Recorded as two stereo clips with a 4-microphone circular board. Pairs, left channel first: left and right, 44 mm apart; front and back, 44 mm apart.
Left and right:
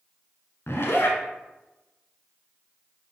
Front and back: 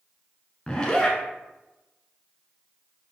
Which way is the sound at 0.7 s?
70° left.